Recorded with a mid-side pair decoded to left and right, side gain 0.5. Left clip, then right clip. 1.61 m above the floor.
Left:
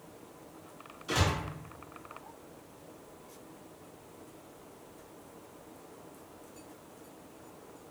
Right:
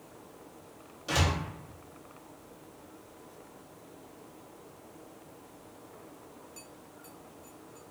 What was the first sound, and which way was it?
A door slam, 55° right.